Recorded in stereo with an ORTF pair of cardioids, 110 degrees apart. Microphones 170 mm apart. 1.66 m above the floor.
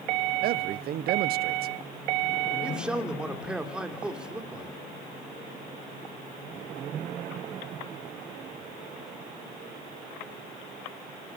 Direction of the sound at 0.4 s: 60° right.